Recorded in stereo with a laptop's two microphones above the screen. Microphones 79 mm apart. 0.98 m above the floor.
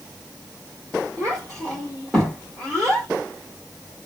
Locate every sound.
1.2 s a child speaking: 5° left (ahead or behind), 1.6 m